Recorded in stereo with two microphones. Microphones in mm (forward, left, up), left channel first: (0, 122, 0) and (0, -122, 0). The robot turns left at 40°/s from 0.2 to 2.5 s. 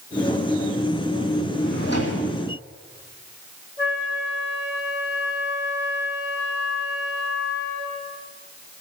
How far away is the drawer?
About 4 m.